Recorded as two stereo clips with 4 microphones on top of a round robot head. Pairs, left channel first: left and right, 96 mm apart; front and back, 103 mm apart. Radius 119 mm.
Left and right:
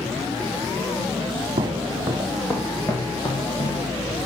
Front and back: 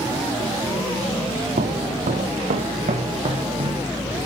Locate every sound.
1.6 s footsteps: 145° right, 2 m; by 3.9 s 140° left, 3.5 m